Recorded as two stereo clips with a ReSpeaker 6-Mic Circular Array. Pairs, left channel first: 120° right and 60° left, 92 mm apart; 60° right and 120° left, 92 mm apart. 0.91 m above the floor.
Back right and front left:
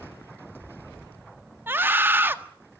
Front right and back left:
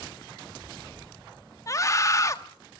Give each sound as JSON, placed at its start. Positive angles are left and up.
{"t": 1.7, "sound": "a scream", "azimuth_deg": -5, "distance_m": 1.6}